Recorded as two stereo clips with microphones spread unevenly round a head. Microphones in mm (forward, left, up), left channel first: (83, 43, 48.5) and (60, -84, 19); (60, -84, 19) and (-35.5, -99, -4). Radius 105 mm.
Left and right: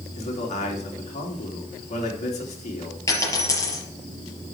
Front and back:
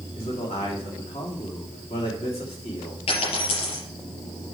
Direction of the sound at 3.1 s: 20° left.